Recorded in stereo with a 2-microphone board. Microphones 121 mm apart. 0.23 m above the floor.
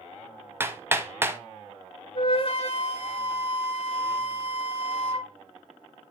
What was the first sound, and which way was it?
Hammering, 20° right (ahead or behind).